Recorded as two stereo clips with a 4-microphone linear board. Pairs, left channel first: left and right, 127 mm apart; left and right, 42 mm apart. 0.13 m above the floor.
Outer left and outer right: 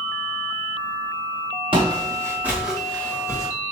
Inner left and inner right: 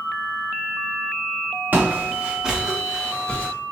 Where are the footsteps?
40° right (ahead or behind), 1.2 m; by 3.5 s 25° left (ahead or behind), 1.3 m.